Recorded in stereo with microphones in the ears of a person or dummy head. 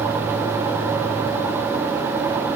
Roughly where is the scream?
I don't hear a scream.